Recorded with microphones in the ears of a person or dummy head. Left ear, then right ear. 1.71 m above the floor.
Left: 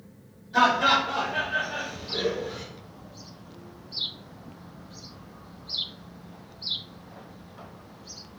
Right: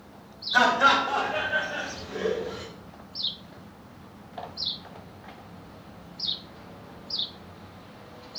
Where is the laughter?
60° right (ahead or behind), 1.1 m; by 2.6 s 30° left (ahead or behind), 1.3 m.